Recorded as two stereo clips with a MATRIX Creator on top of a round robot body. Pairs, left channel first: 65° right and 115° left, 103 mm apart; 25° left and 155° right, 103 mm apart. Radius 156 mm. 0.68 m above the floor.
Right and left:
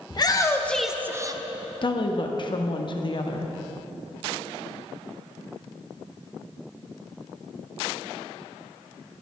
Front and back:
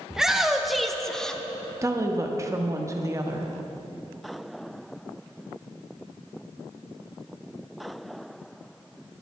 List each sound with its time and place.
0.1 s a shout: 75° right, 1.4 m; by 1.4 s 100° left, 1.3 m
1.8 s a woman speaking: 100° right, 1.6 m